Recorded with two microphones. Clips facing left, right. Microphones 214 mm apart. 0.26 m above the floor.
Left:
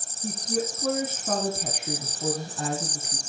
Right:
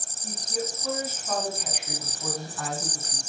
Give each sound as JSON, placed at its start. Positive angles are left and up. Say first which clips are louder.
{"t": 0.2, "sound": "a woman speaking", "louder": "left 4 dB", "side_deg": 65, "distance_m": 3.0}